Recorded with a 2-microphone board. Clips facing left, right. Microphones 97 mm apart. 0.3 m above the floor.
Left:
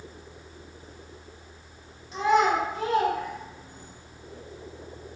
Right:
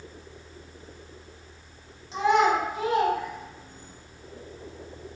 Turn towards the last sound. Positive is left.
turn(degrees=15)  # may be behind; listen again after turning